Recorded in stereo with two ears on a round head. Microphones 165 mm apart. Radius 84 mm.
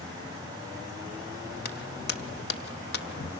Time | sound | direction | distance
1.6 | footsteps | 55° left (ahead or behind) | 1.4 m